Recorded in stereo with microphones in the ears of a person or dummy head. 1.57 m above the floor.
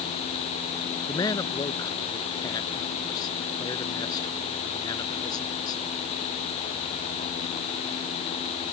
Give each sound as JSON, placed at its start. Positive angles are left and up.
{"t": 1.1, "sound": "a man speaking", "side_deg": 20}